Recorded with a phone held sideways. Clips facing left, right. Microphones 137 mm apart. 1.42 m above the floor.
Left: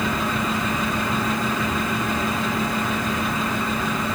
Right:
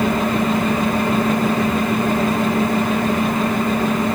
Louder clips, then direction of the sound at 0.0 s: Right 6 dB; 55° right (ahead or behind).